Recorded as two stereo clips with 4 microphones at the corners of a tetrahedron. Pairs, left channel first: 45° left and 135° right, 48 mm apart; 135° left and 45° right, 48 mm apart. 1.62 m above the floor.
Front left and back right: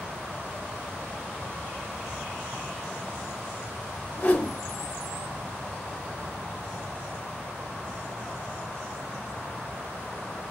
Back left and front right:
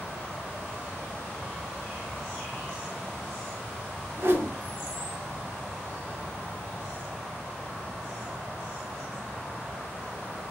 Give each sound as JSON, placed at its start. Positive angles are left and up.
{"t": 4.2, "sound": "a whoosh", "azimuth_deg": -5, "distance_m": 1.2}